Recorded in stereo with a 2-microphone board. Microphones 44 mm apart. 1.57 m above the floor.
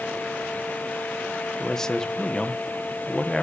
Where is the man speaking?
10° left (ahead or behind), 1.4 m.